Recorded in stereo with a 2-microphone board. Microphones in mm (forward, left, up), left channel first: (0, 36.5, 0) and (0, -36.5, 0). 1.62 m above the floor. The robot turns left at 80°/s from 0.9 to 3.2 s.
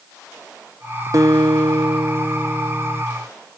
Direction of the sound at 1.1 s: 50° right.